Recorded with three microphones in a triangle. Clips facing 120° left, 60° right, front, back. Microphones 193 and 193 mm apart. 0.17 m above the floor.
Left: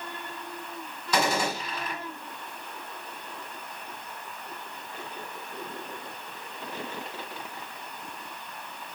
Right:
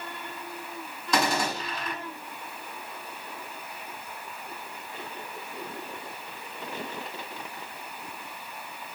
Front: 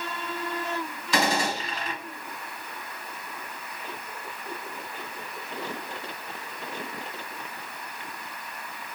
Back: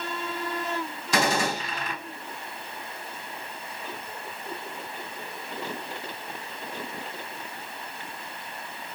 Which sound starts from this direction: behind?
A gunshot, at 1.1 s.